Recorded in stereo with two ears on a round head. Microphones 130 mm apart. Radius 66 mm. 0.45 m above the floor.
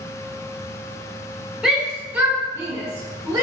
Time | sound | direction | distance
1.6 | a shout | 5° right (ahead or behind) | 0.8 m